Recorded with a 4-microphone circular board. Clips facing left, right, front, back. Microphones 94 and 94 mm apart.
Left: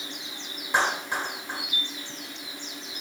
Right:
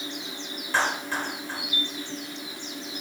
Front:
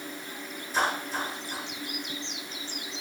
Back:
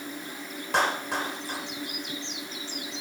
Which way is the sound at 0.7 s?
165° left.